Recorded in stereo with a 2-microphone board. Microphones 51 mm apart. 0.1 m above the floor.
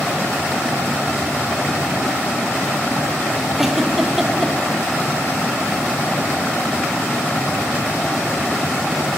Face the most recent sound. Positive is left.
turn(degrees=-5)  # may be behind; listen again after turning